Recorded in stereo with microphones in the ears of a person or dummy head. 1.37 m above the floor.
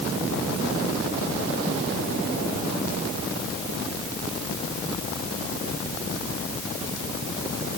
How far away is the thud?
No thud in this recording.